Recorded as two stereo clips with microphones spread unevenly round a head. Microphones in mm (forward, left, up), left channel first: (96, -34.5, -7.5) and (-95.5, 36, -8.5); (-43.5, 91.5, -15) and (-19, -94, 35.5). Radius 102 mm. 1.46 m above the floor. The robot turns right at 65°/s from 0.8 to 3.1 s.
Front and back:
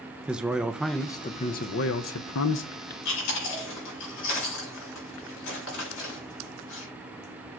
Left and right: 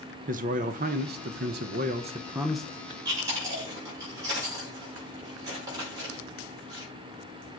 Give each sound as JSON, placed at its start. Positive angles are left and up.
{"t": 0.3, "sound": "a man speaking", "azimuth_deg": -115, "distance_m": 0.7}
{"t": 3.0, "sound": "chewing", "azimuth_deg": -10, "distance_m": 6.0}